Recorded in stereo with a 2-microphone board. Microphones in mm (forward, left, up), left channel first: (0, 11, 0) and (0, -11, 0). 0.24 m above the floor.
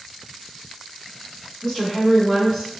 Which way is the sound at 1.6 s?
35° left (ahead or behind).